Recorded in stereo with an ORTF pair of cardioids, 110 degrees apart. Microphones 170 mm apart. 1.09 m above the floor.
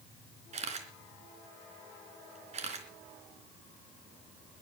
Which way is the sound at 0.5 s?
40° right.